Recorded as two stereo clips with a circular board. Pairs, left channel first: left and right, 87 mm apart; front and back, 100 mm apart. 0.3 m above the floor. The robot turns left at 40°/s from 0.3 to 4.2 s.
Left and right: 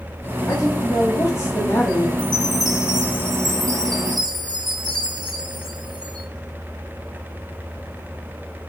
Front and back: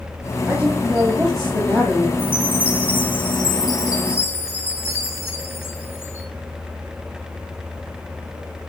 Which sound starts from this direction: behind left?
A woman speaking, at 0.5 s.